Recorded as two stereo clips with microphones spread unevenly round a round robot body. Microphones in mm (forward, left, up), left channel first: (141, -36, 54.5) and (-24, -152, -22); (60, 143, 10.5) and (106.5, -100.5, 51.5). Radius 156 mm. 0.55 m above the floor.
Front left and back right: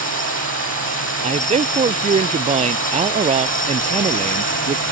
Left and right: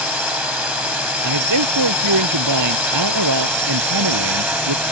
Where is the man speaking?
90° right.